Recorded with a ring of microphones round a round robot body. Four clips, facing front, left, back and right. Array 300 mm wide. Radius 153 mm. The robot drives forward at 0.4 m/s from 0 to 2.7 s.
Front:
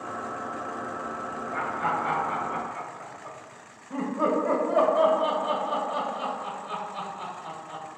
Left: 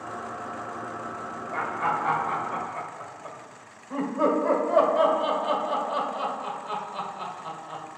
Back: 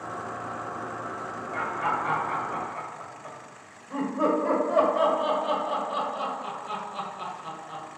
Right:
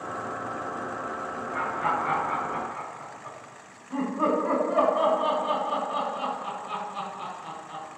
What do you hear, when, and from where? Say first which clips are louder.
1.5 s laughter: left 1 dB, even; 95° left, 1.4 m; by 8.0 s 120° left, 1.5 m